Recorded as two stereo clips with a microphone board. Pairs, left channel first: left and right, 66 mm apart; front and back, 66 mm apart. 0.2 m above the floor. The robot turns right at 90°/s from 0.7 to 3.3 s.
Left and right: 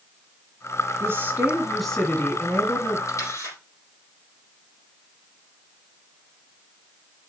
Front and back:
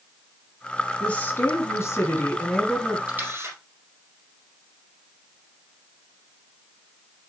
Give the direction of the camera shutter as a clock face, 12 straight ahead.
8 o'clock.